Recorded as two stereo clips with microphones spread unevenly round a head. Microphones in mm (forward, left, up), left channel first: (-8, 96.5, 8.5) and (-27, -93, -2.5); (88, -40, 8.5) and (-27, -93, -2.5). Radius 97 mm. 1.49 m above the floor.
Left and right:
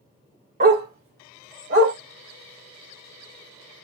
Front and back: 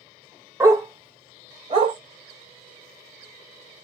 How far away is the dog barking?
About 1.5 m.